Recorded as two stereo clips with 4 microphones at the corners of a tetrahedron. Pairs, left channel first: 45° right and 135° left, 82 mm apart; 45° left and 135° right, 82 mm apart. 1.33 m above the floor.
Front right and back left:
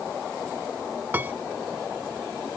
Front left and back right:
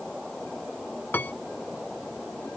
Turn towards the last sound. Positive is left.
turn(degrees=90)